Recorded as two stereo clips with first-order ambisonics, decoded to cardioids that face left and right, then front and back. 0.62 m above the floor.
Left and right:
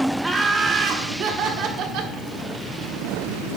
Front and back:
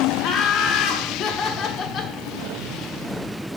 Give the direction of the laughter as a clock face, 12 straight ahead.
12 o'clock.